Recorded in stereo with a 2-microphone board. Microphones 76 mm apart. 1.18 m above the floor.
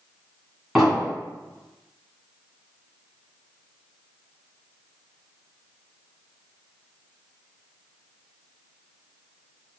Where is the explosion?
Centre (ahead or behind), 1.4 m.